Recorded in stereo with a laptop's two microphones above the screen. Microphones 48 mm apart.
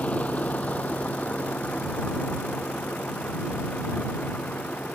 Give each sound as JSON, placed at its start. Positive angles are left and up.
{"t": 0.0, "sound": "a vehicle", "side_deg": 30}